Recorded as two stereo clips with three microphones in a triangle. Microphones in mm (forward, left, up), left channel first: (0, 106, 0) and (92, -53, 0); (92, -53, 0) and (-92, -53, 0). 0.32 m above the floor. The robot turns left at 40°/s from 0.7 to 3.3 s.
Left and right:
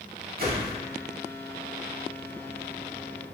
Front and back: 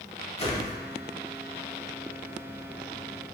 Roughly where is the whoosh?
Ahead right.